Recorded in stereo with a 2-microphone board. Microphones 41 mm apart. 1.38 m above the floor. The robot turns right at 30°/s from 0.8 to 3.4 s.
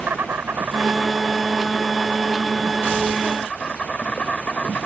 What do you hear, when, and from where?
0.0 s an insect: 50° right; by 4.9 s 25° left